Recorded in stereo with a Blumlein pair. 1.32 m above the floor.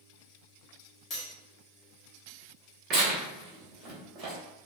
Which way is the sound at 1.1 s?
30° left.